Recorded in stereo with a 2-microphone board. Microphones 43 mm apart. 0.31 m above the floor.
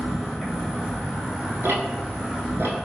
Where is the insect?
Centre (ahead or behind), 1.4 m.